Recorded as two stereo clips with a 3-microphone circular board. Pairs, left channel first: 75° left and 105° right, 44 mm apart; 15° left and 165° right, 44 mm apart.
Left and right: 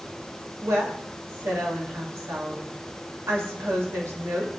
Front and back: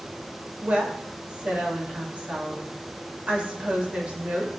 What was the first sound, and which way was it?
A woman speaking, 100° right.